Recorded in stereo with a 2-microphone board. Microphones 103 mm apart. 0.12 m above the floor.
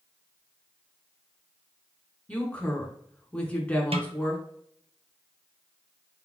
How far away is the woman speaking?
About 1.2 m.